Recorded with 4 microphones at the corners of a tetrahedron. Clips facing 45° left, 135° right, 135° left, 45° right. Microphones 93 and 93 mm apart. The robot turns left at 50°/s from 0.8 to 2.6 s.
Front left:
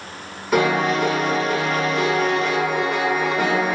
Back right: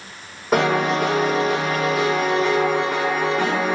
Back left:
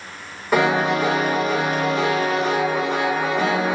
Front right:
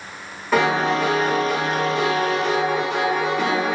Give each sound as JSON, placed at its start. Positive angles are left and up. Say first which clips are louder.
{"t": 0.5, "sound": "a piano", "louder": "even, even", "azimuth_deg": -155, "distance_m": 2.0}